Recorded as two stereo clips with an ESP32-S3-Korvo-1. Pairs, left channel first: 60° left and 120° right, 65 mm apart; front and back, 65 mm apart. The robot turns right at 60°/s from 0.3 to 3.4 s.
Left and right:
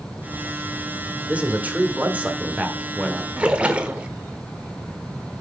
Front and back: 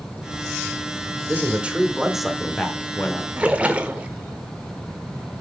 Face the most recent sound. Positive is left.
turn(degrees=-155)